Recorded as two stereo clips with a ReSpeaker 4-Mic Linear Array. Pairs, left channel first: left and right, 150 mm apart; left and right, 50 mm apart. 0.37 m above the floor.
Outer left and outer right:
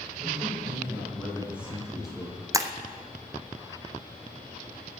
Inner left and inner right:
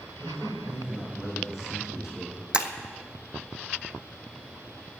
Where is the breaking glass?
20° right (ahead or behind), 1.0 m.